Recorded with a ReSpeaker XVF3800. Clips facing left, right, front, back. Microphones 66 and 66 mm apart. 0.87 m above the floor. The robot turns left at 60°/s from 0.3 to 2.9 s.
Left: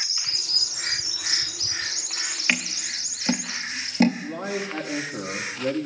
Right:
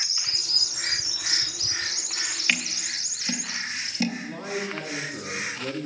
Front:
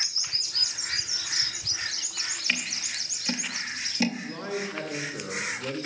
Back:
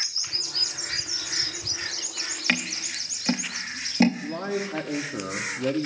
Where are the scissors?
160° left, 0.6 m; by 4.1 s 135° left, 0.6 m.